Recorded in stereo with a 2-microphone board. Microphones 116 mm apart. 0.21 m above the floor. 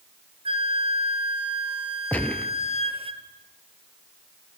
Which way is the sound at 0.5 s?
55° right (ahead or behind).